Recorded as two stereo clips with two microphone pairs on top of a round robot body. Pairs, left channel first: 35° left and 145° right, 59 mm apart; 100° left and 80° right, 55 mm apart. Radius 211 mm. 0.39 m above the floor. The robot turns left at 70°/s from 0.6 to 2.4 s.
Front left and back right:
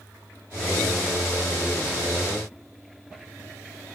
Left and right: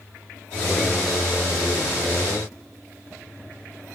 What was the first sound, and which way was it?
Only background noise.